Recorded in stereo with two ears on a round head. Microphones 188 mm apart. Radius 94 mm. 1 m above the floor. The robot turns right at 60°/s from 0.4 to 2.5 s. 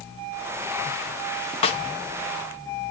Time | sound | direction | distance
1.6 | a snare drum | 30° left (ahead or behind) | 0.8 m